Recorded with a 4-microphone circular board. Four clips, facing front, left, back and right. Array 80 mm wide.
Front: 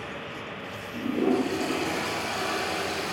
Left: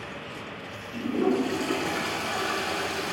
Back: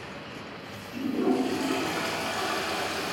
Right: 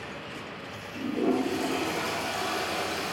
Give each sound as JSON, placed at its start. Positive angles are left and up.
{"t": 0.9, "sound": "a toilet flushing", "azimuth_deg": 110, "distance_m": 4.5}